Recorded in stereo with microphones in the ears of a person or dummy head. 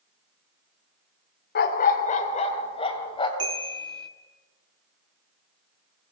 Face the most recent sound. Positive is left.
turn(degrees=-25)  # may be behind; listen again after turning